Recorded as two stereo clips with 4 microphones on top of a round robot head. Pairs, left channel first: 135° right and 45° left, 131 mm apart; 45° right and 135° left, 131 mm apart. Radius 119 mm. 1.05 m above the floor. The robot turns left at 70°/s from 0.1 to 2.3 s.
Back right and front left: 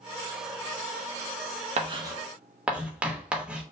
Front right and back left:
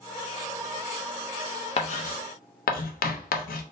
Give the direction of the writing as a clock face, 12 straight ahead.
12 o'clock.